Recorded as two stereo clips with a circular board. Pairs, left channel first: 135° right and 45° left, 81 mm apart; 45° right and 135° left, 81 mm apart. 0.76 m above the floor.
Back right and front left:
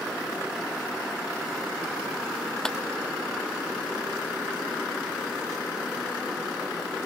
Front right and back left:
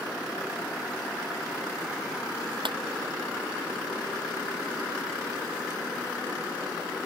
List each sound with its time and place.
2.6 s a clap: 145° left